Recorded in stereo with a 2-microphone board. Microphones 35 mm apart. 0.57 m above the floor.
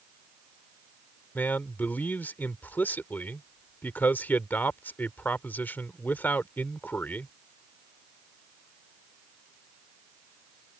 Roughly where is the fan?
No fan in this recording.